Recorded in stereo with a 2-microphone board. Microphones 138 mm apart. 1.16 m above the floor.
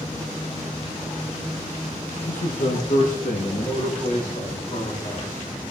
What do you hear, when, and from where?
2.3 s a man speaking: 70° left (ahead or behind), 0.7 m; by 5.5 s 60° left (ahead or behind), 3 m